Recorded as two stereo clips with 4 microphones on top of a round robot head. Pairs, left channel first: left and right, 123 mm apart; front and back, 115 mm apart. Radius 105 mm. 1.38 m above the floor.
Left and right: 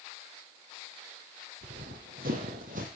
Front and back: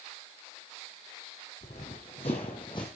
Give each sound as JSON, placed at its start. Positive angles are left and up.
{"t": 1.6, "sound": "running footsteps", "azimuth_deg": -55, "distance_m": 3.0}